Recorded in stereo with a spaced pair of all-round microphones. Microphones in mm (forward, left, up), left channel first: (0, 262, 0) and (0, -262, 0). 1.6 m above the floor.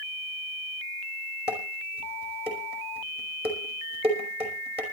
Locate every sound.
1.5 s dishes clattering: 10° right (ahead or behind), 5 m